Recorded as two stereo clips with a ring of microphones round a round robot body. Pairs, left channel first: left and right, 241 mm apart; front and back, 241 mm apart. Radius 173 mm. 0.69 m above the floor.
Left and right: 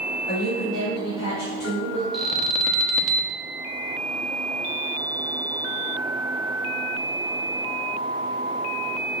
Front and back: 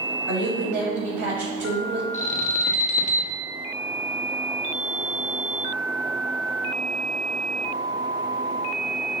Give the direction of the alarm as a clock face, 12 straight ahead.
12 o'clock.